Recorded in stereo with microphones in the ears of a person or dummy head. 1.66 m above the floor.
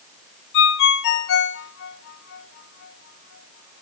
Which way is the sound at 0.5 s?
60° left (ahead or behind).